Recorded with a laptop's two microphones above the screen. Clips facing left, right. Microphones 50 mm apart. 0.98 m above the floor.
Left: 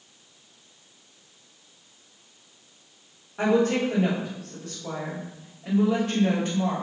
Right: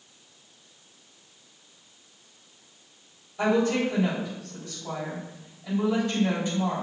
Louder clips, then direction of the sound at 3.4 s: Left 1 dB; 60° left (ahead or behind).